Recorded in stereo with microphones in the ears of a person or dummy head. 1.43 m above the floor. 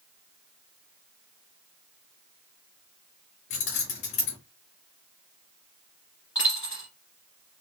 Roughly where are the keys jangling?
Left.